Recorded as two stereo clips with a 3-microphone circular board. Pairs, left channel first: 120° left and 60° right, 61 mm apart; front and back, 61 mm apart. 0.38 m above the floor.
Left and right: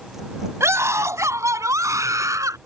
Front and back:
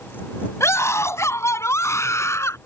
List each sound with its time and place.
0.6 s a scream: 30° right; by 2.6 s 35° right